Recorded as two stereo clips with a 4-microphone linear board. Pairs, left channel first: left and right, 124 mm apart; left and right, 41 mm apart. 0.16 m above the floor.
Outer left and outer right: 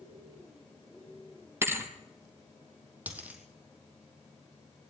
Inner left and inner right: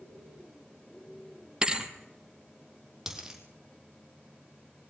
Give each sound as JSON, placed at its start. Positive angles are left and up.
{"t": 1.6, "sound": "a thud", "side_deg": -20, "distance_m": 1.8}
{"t": 3.1, "sound": "a dropped coin", "side_deg": -15, "distance_m": 3.5}